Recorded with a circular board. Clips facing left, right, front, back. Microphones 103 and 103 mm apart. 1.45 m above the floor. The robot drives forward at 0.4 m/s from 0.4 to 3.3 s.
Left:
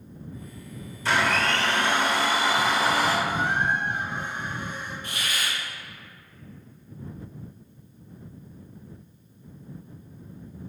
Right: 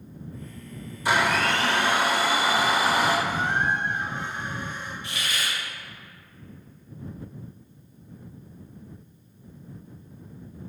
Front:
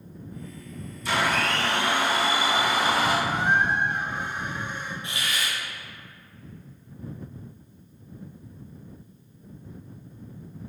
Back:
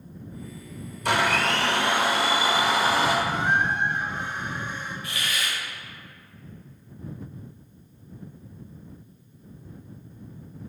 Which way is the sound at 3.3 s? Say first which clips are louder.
Even, front 1 dB; 70° left.